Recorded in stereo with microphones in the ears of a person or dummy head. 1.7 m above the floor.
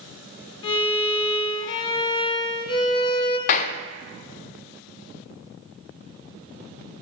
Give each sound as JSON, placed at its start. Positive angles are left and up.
{"t": 0.6, "sound": "a violin", "side_deg": 25, "distance_m": 1.5}
{"t": 3.5, "sound": "a clap", "side_deg": 40, "distance_m": 0.5}